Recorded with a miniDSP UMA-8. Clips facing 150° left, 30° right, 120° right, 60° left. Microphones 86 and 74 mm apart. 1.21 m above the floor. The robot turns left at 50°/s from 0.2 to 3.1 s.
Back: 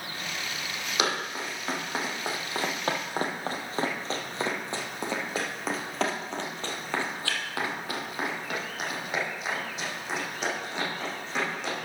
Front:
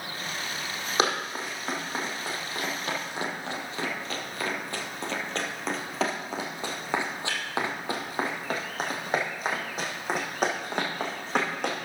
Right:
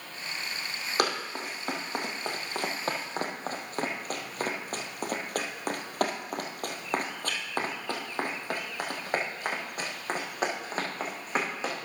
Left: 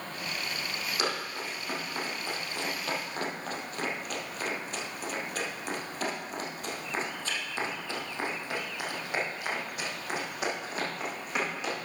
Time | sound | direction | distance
1.0 | running footsteps | 85° right | 3 m